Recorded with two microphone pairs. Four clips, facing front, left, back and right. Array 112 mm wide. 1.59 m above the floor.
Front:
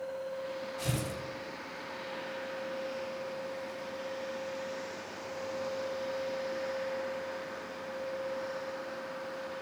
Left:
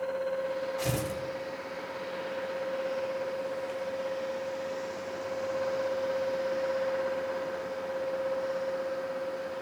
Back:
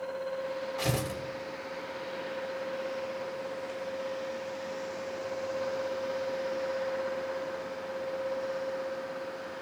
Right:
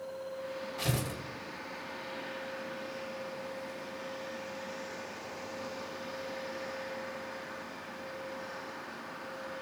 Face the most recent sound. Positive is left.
turn(degrees=175)